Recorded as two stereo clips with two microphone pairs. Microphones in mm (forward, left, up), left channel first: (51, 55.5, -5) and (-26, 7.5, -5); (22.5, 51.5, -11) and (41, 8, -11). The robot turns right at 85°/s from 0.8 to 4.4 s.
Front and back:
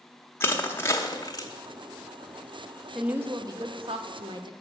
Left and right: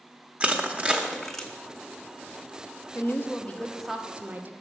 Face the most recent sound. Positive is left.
turn(degrees=-115)